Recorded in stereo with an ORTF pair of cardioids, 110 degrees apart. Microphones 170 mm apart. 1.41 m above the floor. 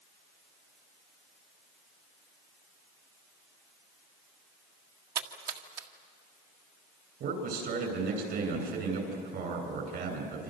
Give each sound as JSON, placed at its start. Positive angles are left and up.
{"t": 5.2, "sound": "a splash", "azimuth_deg": -70, "distance_m": 2.0}
{"t": 7.2, "sound": "a man speaking", "azimuth_deg": -70, "distance_m": 9.5}